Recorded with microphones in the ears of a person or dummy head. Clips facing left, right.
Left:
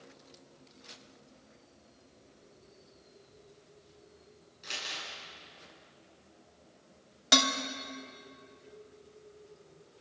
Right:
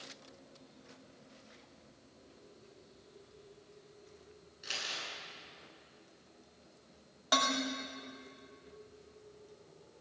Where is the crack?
No crack in this recording.